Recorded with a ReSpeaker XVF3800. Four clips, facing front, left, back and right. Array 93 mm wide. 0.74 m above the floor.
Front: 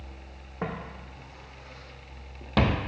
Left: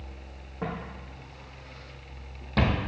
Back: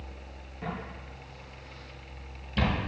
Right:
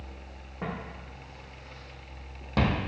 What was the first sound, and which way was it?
Footsteps, straight ahead.